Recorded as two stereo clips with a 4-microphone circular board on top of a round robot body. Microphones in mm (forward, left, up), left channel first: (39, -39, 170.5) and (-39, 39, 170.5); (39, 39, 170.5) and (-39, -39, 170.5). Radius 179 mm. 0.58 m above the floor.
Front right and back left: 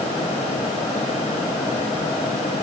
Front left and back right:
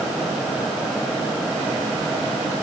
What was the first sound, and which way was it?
Only background noise.